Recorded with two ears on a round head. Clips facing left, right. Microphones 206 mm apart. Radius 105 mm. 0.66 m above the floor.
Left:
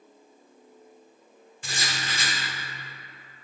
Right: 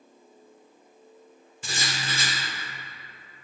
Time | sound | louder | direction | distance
1.6 | writing | right 1 dB | 85° right | 0.6 m